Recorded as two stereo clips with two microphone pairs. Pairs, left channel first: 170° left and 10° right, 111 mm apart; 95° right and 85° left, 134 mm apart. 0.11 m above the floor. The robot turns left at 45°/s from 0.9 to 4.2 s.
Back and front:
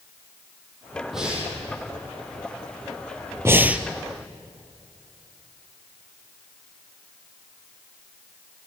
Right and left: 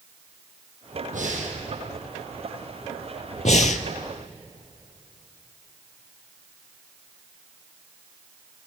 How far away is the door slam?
I don't hear a door slam.